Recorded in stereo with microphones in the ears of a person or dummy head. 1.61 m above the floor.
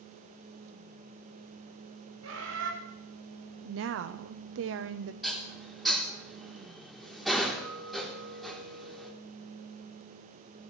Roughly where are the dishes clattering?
Centre.